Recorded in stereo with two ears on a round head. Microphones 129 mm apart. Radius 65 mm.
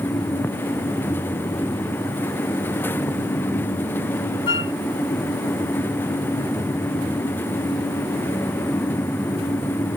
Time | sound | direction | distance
4.5 | a flute | 35° left (ahead or behind) | ?